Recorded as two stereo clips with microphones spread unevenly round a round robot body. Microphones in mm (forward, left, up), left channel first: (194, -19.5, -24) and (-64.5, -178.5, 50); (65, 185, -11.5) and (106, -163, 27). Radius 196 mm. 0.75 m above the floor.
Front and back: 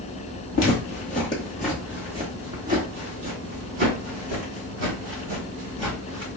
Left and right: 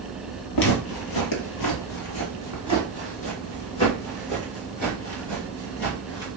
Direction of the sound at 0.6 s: 85° left.